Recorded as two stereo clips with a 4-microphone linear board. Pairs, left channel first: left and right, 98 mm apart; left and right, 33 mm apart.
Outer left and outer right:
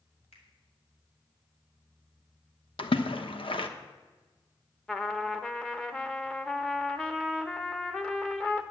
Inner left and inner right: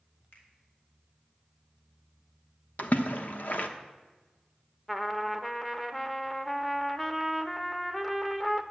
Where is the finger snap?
85° left, 3.5 m.